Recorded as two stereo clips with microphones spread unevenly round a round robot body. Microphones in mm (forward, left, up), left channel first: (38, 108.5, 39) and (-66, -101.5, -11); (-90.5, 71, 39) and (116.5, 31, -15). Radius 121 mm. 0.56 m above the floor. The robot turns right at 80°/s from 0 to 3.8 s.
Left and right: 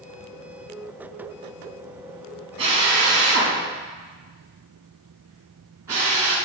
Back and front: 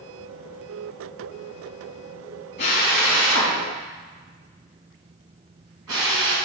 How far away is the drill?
About 3 m.